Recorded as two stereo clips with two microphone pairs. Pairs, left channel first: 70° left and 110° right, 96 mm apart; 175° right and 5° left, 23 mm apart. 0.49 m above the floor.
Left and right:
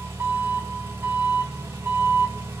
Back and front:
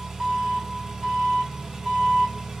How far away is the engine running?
About 1.2 m.